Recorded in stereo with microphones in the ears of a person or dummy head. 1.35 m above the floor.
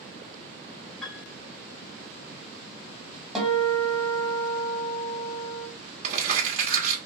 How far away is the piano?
About 1.5 m.